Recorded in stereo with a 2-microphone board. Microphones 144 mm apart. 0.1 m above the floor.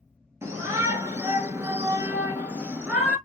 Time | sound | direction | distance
0.4 | a shout | 20° right (ahead or behind) | 1.5 m